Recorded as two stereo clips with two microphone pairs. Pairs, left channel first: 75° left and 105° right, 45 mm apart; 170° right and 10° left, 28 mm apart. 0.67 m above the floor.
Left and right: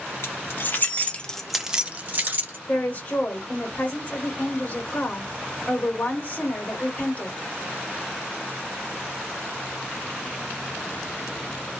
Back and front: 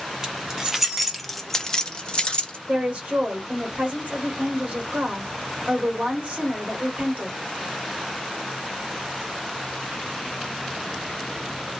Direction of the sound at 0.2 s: 70° left.